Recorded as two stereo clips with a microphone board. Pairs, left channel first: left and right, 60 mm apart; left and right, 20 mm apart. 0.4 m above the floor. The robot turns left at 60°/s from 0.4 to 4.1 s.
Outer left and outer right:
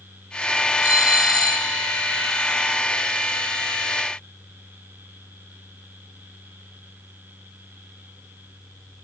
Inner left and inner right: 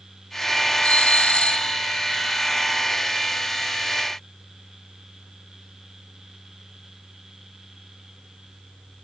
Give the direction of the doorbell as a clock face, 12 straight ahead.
8 o'clock.